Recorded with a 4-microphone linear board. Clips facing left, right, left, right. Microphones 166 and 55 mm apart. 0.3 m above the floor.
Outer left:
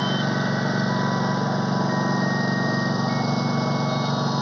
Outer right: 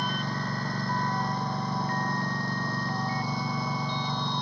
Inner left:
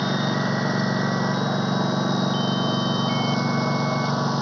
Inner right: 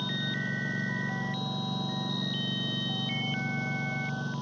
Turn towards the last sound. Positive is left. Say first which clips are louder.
# outer left 9 dB, inner left 10 dB
turn(degrees=85)